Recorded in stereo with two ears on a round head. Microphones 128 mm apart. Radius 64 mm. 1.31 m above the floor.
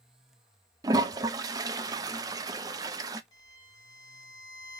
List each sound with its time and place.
0.8 s a toilet flushing: 25° right (ahead or behind), 0.5 m
3.3 s a violin: 30° left (ahead or behind), 1.0 m